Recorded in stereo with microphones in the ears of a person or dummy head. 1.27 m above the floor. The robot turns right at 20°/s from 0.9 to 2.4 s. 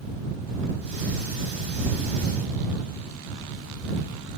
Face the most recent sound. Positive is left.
No sound to turn to.